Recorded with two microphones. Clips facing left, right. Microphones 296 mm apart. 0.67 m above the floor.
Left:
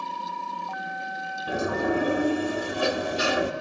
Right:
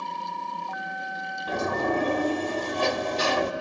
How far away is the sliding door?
About 1.1 m.